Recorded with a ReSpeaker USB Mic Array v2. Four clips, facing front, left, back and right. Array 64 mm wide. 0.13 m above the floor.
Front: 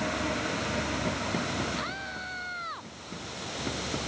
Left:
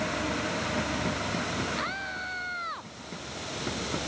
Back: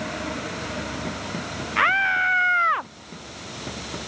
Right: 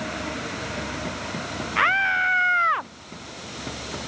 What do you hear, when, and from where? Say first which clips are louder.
1.8 s a scream: right 13 dB, back 16 dB; 140° right